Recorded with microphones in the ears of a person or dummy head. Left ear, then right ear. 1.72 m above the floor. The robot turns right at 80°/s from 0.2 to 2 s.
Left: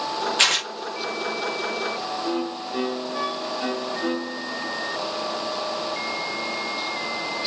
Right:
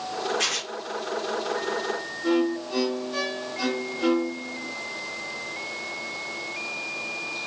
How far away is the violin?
About 0.8 m.